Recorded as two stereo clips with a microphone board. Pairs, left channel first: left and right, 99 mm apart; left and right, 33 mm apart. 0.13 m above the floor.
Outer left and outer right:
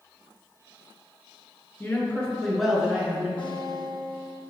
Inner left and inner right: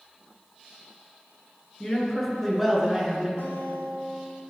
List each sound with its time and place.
1.8 s a man speaking: 20° left (ahead or behind), 2 m; by 3.3 s 20° right (ahead or behind), 2 m
3.4 s a guitar: 55° left (ahead or behind), 3 m